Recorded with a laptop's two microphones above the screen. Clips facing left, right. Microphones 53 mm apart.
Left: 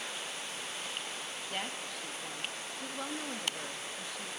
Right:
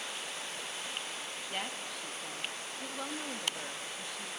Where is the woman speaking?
Centre (ahead or behind), 1.1 m.